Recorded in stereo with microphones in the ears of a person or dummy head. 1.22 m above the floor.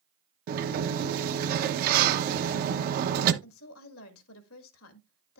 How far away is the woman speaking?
About 1.9 m.